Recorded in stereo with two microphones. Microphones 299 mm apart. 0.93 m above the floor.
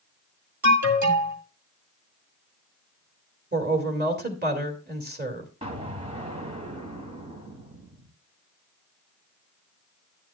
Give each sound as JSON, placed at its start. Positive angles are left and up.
{"t": 0.6, "sound": "an alarm", "side_deg": -70, "distance_m": 2.0}
{"t": 3.5, "sound": "a woman speaking", "side_deg": -30, "distance_m": 2.5}
{"t": 5.6, "sound": "an explosion", "side_deg": -25, "distance_m": 2.0}